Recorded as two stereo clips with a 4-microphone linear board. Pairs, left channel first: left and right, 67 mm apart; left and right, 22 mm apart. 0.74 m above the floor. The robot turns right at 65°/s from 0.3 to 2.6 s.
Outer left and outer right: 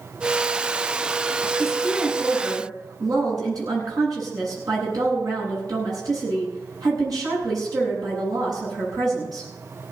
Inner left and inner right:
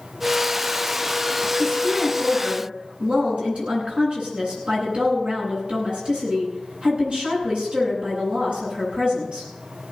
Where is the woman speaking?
Straight behind, 10 m; by 9.5 s 115° right, 10 m.